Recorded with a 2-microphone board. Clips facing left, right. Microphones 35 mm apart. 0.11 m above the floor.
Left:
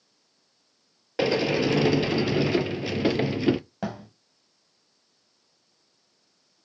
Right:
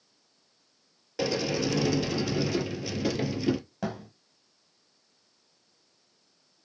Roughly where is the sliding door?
Left.